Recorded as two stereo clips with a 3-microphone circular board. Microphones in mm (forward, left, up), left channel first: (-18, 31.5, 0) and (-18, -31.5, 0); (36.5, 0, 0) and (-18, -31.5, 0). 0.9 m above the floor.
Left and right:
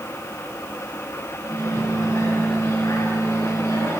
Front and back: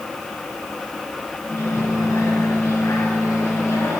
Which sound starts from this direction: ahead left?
A microwave, at 1.4 s.